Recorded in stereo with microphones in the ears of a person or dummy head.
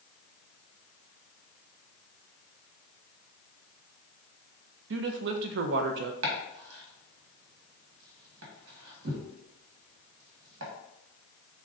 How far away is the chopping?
About 1.2 m.